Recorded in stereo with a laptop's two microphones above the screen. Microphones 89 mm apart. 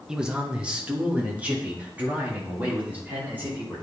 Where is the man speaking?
10° right (ahead or behind), 0.8 m; by 3.8 s 20° right (ahead or behind), 3 m.